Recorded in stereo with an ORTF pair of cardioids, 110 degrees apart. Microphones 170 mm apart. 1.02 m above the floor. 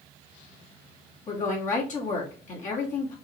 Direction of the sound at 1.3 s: 50° left.